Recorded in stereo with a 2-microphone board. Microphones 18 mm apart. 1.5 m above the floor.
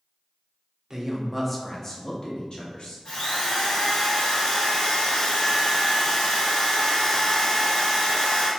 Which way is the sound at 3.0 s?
80° left.